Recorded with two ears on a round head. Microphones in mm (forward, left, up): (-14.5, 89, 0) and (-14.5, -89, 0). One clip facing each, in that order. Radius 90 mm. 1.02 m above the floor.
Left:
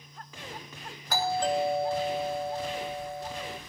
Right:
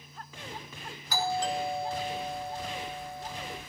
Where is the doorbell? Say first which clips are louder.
Left 3 dB; 45° left (ahead or behind), 3 m.